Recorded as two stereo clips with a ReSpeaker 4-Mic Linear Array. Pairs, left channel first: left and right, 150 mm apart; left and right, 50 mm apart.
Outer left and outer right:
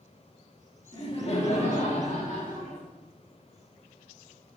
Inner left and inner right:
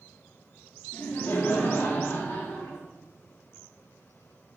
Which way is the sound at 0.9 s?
35° left (ahead or behind).